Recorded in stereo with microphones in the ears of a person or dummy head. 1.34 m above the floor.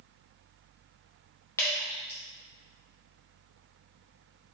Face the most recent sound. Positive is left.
turn(degrees=15)  # may be behind; listen again after turning